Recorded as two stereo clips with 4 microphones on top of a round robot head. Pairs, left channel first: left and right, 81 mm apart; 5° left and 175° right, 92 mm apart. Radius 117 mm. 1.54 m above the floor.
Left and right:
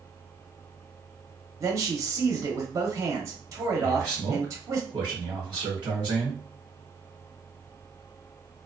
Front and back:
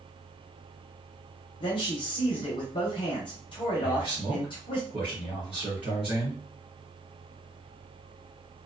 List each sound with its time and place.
1.6 s a man speaking: 40° right, 0.8 m
3.8 s a man speaking: 135° right, 1.1 m